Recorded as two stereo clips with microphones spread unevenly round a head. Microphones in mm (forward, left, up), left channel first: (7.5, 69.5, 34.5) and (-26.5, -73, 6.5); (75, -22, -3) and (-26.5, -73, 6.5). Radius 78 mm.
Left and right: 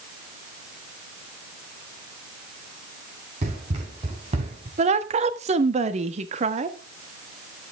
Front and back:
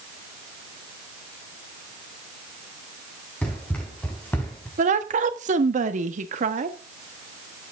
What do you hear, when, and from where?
3.4 s running footsteps: 50° right, 6 m; by 4.7 s 45° right, 4 m
4.8 s a woman speaking: 140° right, 1.4 m